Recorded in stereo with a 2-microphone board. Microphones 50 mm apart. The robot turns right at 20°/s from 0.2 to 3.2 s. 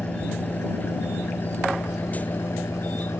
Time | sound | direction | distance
0.0 | an engine running | 30° left | ?